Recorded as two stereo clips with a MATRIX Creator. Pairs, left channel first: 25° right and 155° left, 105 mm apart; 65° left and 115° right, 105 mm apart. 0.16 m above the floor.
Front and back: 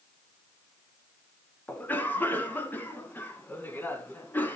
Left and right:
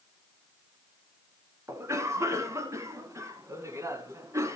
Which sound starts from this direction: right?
A cough, at 1.7 s.